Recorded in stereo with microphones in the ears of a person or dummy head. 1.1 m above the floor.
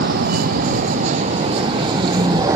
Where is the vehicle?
55° right (ahead or behind); by 2.6 s 20° right (ahead or behind).